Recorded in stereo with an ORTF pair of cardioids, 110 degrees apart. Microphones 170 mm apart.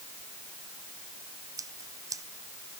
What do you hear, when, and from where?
1.6 s scissors: 20° right